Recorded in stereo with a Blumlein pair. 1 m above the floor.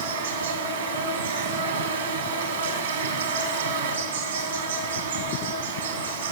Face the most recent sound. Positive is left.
turn(degrees=-70)